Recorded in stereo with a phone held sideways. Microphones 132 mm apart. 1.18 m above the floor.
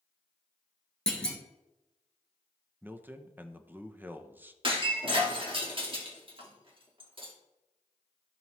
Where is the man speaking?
15° right (ahead or behind), 0.6 m.